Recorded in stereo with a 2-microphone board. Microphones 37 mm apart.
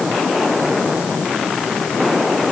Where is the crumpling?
No crumpling in this recording.